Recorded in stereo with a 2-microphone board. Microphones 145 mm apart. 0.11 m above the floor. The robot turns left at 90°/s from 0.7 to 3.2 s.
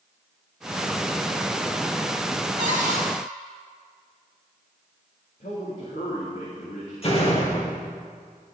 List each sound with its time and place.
2.6 s a cupboard door: 90° right, 3 m; by 3.0 s 130° right, 3 m
5.4 s a man speaking: 70° left (ahead or behind), 4 m
7.0 s a door slam: 45° left (ahead or behind), 2.5 m